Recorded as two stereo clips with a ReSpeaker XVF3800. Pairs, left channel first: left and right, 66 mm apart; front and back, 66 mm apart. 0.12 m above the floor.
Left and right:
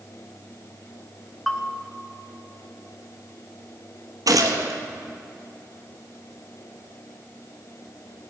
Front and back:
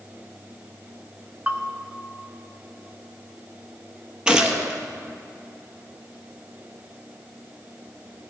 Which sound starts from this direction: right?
A gunshot, at 4.3 s.